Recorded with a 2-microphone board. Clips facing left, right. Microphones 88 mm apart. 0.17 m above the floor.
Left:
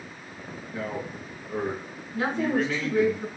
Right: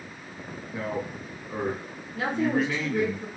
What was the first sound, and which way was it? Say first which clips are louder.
A man speaking: right 1 dB; 15° right (ahead or behind).